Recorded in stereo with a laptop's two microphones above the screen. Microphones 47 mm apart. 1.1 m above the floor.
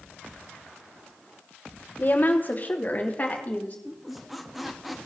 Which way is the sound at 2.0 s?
40° left (ahead or behind).